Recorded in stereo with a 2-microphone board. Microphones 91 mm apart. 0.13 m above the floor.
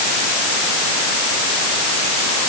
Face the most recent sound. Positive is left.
No sound to turn to.